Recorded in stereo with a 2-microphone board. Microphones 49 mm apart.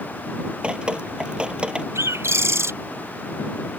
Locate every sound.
0.6 s dripping: 20° right (ahead or behind)
1.9 s a bird: 65° right (ahead or behind)